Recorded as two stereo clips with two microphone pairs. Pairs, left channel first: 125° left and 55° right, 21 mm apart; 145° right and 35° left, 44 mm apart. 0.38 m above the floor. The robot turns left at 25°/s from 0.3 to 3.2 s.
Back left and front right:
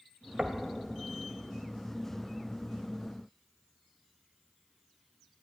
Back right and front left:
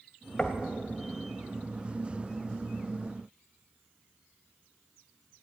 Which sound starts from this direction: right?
Knocking, at 0.4 s.